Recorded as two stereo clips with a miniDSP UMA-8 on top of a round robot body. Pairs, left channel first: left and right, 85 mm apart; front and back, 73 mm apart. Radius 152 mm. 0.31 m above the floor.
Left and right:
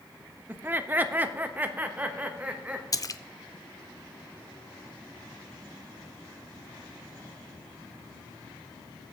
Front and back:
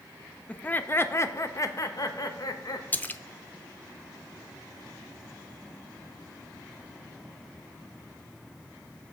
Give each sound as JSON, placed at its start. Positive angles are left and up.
{"t": 0.5, "sound": "laughter", "azimuth_deg": -55, "distance_m": 0.9}
{"t": 2.9, "sound": "a splash", "azimuth_deg": 60, "distance_m": 0.6}